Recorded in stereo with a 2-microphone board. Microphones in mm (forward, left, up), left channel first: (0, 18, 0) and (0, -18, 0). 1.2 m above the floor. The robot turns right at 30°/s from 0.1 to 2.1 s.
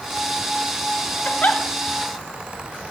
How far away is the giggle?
About 1.2 m.